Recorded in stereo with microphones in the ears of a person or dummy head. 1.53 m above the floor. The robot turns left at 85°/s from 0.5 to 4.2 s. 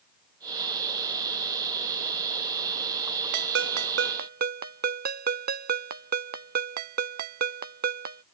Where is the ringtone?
60° right; by 8.2 s 130° right.